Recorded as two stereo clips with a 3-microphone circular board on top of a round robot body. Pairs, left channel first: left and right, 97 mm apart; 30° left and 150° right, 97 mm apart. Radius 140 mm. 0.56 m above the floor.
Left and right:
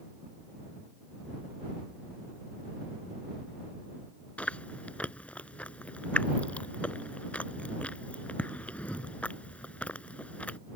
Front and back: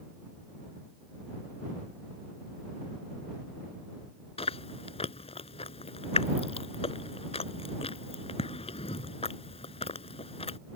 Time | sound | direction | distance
4.4 | chewing | 10° left | ?